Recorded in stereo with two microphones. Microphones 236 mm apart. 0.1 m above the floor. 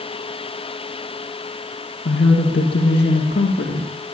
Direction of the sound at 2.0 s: 55° left (ahead or behind).